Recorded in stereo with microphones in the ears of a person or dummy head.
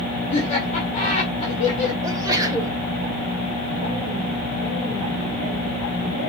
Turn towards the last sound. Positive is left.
turn(degrees=-15)  # may be behind; listen again after turning